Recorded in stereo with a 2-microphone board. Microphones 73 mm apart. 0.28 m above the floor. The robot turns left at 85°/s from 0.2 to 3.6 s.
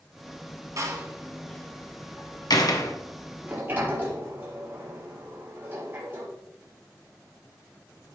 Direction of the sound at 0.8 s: 45° right (ahead or behind).